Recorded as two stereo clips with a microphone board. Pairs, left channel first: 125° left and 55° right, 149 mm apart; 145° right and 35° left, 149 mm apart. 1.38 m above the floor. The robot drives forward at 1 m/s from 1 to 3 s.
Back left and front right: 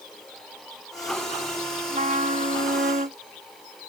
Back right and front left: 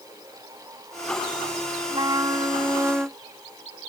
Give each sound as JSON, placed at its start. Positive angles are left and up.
{"t": 1.9, "sound": "a trumpet", "azimuth_deg": -25}